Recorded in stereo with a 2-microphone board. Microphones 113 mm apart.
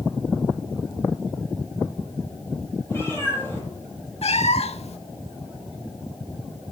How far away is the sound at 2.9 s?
About 6 m.